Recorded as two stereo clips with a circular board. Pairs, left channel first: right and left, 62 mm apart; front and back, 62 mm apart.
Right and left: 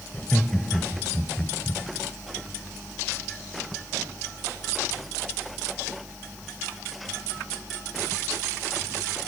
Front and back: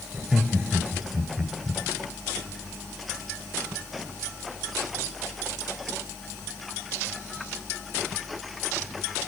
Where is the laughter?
140° right, 1.6 m.